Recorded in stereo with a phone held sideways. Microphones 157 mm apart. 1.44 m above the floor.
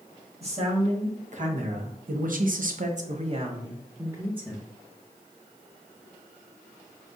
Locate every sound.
0.4 s a man speaking: 45° right (ahead or behind), 1.5 m; by 4.7 s 5° right (ahead or behind), 1.1 m